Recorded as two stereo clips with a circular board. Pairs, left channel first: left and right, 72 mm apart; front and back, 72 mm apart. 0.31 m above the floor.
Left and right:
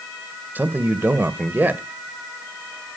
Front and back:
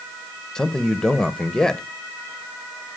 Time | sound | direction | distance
0.6 | a man speaking | 70° right | 0.9 m